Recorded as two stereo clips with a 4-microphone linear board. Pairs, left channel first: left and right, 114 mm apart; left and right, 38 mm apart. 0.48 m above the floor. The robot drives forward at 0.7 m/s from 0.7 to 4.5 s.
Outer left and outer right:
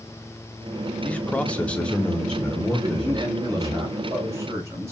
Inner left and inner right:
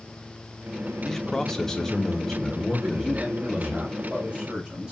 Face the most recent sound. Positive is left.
turn(degrees=-25)  # may be behind; listen again after turning